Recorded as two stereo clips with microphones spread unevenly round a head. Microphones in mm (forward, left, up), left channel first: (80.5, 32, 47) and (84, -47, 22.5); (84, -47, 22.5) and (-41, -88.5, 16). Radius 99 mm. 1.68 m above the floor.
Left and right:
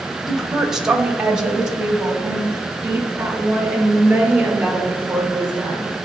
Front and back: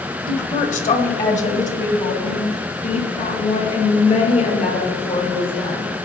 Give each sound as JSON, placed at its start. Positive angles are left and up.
{"t": 0.3, "sound": "a woman speaking", "azimuth_deg": 5, "distance_m": 1.9}